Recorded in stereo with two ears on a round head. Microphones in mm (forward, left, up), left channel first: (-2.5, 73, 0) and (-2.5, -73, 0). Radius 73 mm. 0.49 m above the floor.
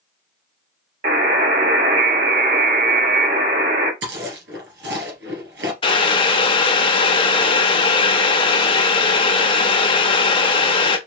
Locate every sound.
1.0 s a buzzer: 60° right (ahead or behind), 3 m
4.0 s chewing: 85° right, 2.5 m
5.8 s boiling: 35° left (ahead or behind), 0.9 m